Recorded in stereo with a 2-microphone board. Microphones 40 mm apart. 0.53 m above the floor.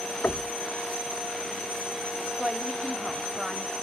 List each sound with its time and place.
0.2 s knocking: 50° left (ahead or behind), 0.5 m
2.4 s a woman speaking: 10° right (ahead or behind), 1.0 m